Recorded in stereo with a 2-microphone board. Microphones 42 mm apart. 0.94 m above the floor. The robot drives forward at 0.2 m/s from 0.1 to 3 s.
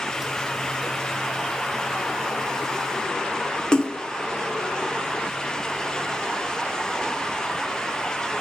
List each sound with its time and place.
3.7 s a splash: 20° left (ahead or behind), 0.5 m